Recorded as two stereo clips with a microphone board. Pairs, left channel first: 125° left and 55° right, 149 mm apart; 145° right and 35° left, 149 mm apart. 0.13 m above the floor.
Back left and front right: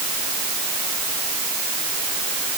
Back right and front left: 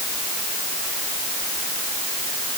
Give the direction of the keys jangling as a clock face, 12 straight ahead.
I don't hear keys jangling.